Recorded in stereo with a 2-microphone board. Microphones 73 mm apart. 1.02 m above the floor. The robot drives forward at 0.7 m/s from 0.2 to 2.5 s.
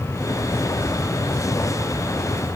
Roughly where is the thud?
No thud in this recording.